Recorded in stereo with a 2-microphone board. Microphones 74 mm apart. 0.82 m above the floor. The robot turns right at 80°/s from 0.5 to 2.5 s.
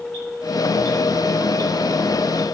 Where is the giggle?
No giggle in this recording.